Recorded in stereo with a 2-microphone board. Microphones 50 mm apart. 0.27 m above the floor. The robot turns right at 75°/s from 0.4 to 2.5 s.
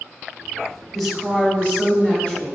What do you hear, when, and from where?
0.9 s a woman speaking: 5° left (ahead or behind), 1.3 m; by 2.6 s 15° left (ahead or behind), 1.3 m